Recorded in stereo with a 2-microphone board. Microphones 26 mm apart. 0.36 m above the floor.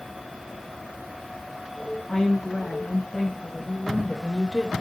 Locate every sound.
2.1 s a woman speaking: 30° left (ahead or behind), 2.5 m; by 4.7 s 20° right (ahead or behind), 1.0 m